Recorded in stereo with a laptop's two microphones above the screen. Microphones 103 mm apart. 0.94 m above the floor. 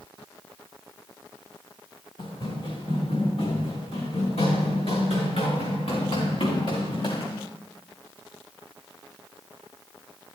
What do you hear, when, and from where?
2.2 s running footsteps: 60° left (ahead or behind), 4 m; by 7.5 s 50° left (ahead or behind), 5 m